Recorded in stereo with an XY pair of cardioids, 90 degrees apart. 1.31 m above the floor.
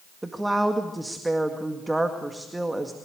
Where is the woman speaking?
15° right, 2.0 m.